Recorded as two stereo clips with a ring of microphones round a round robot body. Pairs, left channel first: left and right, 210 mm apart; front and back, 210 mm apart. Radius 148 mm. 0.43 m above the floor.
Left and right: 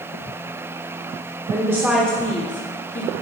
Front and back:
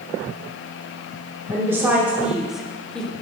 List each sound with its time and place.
1.5 s a woman speaking: 125° right, 1.1 m; by 3.1 s 85° left, 1.2 m